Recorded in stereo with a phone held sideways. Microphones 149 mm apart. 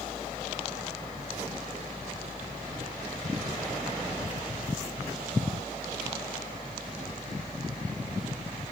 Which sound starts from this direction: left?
A fan, at 0.0 s.